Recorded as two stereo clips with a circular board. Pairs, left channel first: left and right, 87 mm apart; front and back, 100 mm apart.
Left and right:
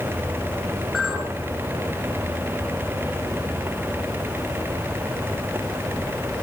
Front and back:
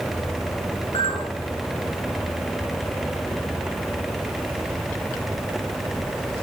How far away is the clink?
About 2.5 m.